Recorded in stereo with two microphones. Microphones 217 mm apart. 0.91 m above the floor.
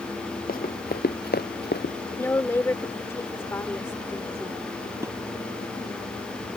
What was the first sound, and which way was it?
Running footsteps, 45° left (ahead or behind).